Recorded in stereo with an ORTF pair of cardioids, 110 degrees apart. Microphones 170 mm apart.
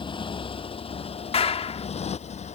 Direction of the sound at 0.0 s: 30° left.